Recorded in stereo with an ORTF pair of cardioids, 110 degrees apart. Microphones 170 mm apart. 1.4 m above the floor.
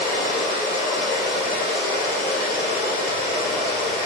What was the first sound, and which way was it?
Running water, 70° left.